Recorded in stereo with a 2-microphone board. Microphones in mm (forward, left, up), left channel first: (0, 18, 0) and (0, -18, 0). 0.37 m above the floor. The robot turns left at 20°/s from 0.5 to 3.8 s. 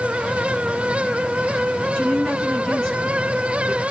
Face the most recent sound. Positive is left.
turn(degrees=-15)  # may be behind; listen again after turning